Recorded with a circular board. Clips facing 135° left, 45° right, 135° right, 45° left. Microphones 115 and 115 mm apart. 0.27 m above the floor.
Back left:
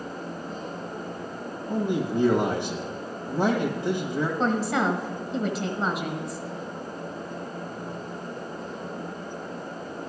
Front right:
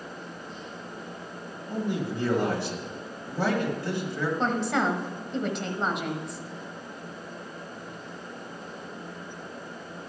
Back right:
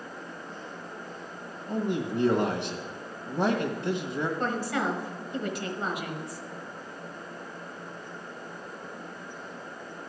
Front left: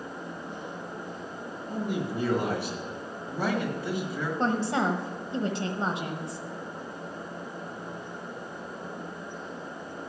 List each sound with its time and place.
1.7 s a man speaking: 170° right, 1.4 m
4.4 s a woman speaking: 50° left, 1.3 m